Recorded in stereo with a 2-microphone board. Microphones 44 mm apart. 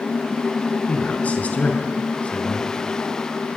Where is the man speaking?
30° left (ahead or behind), 5 m.